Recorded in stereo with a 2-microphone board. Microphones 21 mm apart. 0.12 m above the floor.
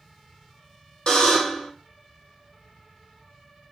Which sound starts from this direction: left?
A buzzer, at 1.1 s.